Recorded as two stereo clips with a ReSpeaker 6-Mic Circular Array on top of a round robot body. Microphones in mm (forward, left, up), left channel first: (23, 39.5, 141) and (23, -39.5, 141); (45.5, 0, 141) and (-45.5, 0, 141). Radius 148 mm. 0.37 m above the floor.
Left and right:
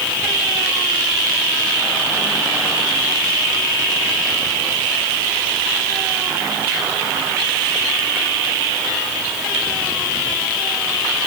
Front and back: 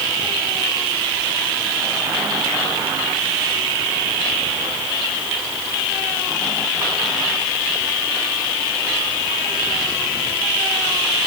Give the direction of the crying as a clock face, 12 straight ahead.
I don't hear crying.